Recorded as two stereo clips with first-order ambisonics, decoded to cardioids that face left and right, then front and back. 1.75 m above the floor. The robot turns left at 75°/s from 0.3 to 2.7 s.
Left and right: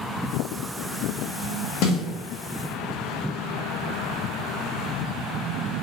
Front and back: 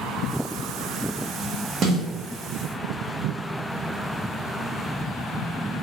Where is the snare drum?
125° left, 0.9 m; by 2.0 s 105° left, 0.9 m.